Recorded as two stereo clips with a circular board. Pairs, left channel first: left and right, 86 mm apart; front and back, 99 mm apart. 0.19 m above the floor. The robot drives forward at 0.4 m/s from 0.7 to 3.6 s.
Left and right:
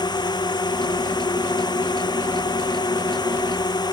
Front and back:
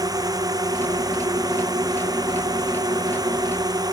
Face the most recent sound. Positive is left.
turn(degrees=130)